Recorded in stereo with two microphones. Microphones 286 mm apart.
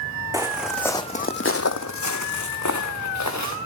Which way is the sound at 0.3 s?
10° right (ahead or behind).